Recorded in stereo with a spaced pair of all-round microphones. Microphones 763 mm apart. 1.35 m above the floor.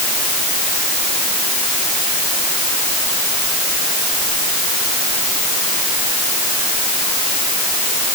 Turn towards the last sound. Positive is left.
No sound to turn to.